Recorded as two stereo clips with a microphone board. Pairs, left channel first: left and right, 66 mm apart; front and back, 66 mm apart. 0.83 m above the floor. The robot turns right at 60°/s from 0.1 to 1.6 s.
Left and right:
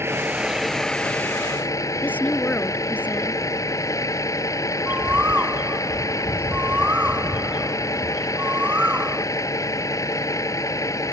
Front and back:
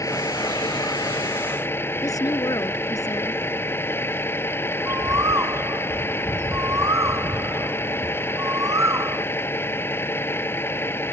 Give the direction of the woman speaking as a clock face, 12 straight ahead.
11 o'clock.